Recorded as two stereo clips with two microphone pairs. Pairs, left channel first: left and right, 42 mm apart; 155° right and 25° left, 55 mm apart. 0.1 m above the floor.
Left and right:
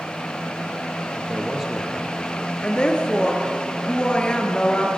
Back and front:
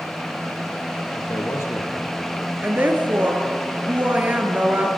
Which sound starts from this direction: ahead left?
A woman speaking, at 2.6 s.